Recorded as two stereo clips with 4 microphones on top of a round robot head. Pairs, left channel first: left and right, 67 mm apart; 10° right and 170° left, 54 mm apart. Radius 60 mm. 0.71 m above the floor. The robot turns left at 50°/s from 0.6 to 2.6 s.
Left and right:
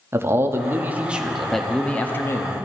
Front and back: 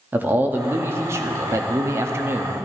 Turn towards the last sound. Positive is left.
turn(degrees=125)